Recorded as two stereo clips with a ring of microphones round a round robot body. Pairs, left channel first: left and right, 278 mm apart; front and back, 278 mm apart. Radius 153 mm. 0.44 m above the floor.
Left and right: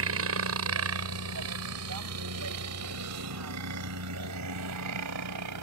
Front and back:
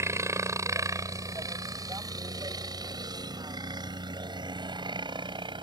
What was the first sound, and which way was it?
A helicopter, 105° right.